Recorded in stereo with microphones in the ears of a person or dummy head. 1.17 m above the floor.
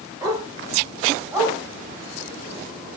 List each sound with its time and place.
0.2 s a dog barking: 20° right (ahead or behind), 3.5 m; by 1.6 s 5° right (ahead or behind), 3.5 m